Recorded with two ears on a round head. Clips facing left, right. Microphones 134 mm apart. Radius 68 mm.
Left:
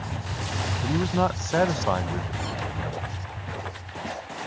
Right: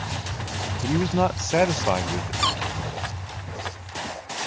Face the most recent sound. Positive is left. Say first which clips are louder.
# right 4 dB
turn(degrees=-75)  # may be behind; listen again after turning